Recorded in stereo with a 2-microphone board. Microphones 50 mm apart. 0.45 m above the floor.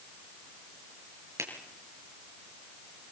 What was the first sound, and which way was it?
A finger snap, 85° right.